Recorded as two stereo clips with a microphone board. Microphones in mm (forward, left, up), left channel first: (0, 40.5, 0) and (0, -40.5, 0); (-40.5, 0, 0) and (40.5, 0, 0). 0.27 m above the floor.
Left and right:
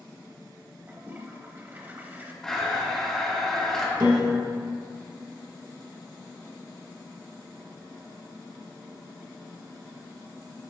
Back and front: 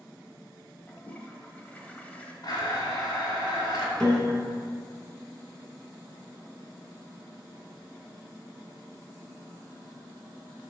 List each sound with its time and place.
0.9 s a toilet flushing: 130° right, 0.8 m
2.4 s a blender: 170° left, 2 m
4.0 s a piano: 100° right, 1.4 m